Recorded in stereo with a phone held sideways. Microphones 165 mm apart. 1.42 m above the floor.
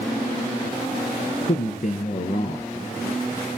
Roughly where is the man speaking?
Left.